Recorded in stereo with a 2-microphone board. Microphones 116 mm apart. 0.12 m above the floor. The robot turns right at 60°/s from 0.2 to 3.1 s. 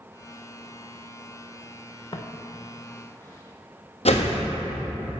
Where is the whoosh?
70° left (ahead or behind), 1.3 m.